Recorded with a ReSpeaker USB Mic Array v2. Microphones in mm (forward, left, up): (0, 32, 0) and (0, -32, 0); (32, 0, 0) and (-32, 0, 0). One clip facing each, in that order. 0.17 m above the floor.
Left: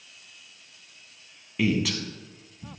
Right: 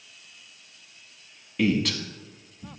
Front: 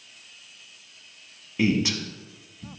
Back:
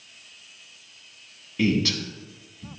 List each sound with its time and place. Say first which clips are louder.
1.6 s a man speaking: right 1 dB, even; 10° left, 1.0 m